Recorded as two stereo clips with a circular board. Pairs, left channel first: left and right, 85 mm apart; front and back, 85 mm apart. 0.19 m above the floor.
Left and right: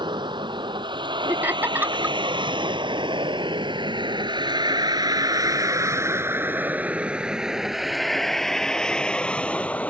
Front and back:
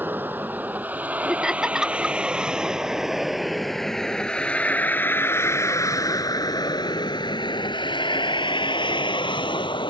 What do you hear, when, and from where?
0.0 s a vehicle: 115° right; by 9.9 s 15° left
1.3 s laughter: 105° right